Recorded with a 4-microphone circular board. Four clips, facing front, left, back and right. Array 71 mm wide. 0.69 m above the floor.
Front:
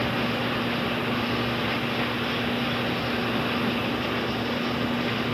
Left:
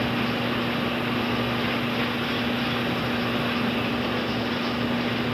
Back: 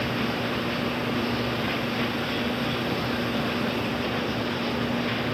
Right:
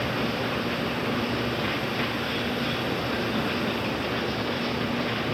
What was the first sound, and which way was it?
Only background noise.